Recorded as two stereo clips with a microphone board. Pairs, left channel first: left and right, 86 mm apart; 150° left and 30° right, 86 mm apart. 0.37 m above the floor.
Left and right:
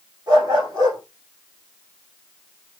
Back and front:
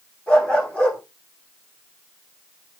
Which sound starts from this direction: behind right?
A dog barking, at 0.3 s.